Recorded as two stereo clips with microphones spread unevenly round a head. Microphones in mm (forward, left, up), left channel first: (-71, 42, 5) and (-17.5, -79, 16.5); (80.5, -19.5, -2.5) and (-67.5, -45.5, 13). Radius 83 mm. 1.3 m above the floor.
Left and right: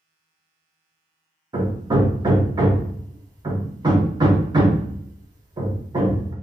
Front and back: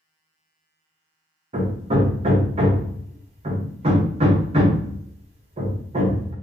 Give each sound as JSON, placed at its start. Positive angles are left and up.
{"t": 1.5, "sound": "hammering", "azimuth_deg": -125, "distance_m": 0.9}